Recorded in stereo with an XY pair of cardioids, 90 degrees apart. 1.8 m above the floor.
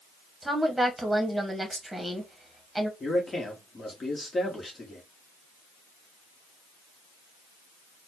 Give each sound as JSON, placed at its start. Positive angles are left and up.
{"t": 0.4, "sound": "a woman speaking", "azimuth_deg": -10, "distance_m": 1.5}
{"t": 3.0, "sound": "a man speaking", "azimuth_deg": 35, "distance_m": 1.5}